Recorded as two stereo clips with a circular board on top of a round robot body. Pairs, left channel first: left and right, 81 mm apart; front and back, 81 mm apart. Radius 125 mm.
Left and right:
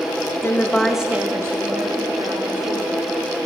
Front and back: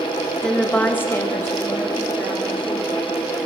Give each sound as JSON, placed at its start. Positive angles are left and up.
{"t": 0.4, "sound": "a woman speaking", "azimuth_deg": 75, "distance_m": 1.1}